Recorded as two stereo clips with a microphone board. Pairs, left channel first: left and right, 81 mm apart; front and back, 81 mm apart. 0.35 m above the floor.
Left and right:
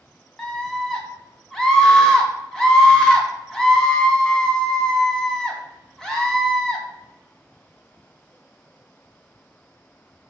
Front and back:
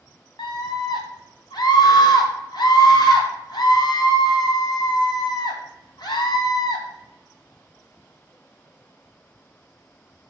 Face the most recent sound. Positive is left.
turn(degrees=5)